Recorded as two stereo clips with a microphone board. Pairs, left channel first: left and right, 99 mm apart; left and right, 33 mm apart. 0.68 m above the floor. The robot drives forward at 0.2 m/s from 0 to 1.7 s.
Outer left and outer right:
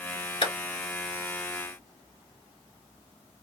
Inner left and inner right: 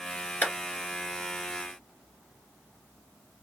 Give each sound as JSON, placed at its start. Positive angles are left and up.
{"t": 0.4, "sound": "a clap", "side_deg": 60, "distance_m": 2.0}